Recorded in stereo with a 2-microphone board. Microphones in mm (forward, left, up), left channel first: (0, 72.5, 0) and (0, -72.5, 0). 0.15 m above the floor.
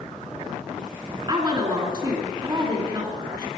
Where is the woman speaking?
35° right (ahead or behind), 2.0 m.